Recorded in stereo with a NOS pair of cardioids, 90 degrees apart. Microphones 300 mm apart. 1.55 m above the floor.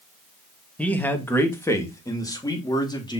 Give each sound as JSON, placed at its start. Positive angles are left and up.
{"t": 0.8, "sound": "a man speaking", "azimuth_deg": 5, "distance_m": 1.9}